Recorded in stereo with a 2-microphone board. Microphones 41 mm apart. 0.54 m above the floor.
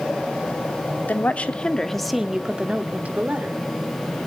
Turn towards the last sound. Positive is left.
turn(degrees=-45)  # may be behind; listen again after turning